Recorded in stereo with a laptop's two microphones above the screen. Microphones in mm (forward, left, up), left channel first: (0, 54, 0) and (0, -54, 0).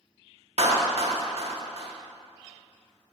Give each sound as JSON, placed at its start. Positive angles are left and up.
{"t": 0.6, "sound": "a clap", "side_deg": -65, "distance_m": 1.3}